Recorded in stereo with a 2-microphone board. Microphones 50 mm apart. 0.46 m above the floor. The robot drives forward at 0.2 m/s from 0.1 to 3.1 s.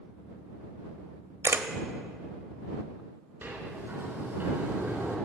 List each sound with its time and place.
1.4 s a camera shutter: 70° right (ahead or behind), 0.7 m; by 1.7 s 65° right (ahead or behind), 0.8 m
3.4 s a sliding door: 40° right (ahead or behind), 3 m